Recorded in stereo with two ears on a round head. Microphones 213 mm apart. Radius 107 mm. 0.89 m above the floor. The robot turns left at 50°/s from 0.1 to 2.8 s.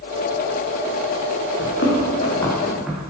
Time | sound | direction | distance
1.6 | running footsteps | 55° left (ahead or behind) | 3.5 m